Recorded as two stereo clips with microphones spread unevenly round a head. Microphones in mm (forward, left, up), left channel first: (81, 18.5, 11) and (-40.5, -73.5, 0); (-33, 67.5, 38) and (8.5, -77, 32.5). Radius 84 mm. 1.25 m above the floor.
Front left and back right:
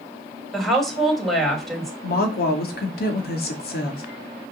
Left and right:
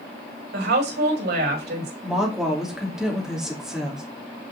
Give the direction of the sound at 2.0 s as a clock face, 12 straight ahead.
12 o'clock.